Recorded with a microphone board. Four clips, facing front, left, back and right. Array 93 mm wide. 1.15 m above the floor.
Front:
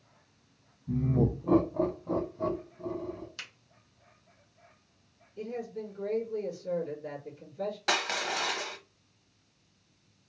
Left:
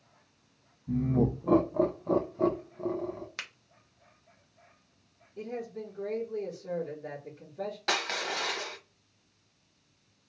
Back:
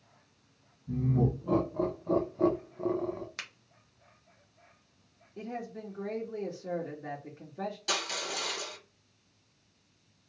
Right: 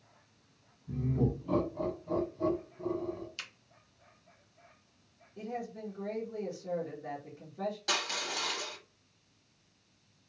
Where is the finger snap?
120° left, 0.8 m.